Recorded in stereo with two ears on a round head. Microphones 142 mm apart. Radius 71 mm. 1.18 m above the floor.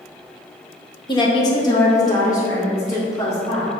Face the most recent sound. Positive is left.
turn(degrees=20)  # may be behind; listen again after turning